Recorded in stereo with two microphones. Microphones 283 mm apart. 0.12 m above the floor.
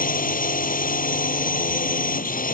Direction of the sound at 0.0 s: 30° left (ahead or behind).